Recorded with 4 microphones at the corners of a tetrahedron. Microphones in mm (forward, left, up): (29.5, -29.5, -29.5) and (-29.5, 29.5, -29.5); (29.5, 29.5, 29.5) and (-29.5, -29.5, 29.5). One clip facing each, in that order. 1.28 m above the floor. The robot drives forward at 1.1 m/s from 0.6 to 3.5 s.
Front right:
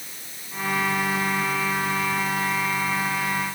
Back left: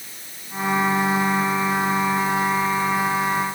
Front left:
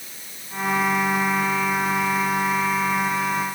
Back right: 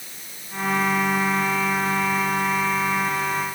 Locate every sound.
Only background noise.